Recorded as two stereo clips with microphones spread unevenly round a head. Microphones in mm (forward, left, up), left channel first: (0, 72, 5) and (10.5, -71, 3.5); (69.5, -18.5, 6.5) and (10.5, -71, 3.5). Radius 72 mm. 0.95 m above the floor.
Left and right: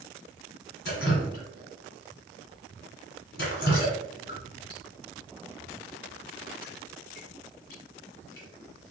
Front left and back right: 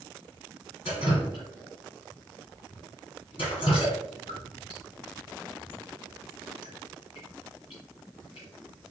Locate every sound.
0.8 s dripping: 80° left, 2 m